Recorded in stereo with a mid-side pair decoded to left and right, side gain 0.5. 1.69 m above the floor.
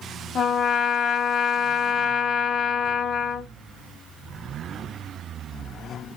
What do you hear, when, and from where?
0.3 s a trumpet: 50° left, 1.3 m